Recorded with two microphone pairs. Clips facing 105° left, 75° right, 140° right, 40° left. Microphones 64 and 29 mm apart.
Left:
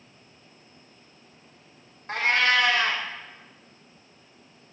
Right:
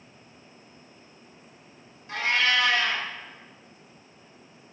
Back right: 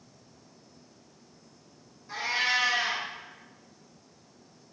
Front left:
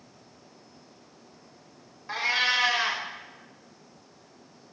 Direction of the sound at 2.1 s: 75° left.